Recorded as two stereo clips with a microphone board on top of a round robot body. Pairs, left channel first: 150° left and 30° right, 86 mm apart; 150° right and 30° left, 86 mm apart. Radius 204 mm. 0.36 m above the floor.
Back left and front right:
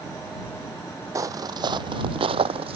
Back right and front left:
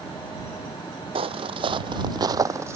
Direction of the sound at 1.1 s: 25° left.